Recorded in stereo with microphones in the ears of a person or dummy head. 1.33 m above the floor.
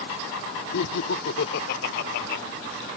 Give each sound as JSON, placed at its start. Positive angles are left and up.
{"t": 0.7, "sound": "laughter", "side_deg": 80}